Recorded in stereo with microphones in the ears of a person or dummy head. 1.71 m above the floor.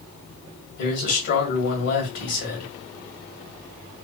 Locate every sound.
0.8 s a man speaking: 65° left (ahead or behind), 1.7 m